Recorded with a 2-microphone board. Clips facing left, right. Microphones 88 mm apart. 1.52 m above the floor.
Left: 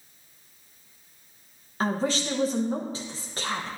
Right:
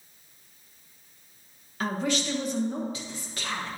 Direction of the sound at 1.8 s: 35° left (ahead or behind).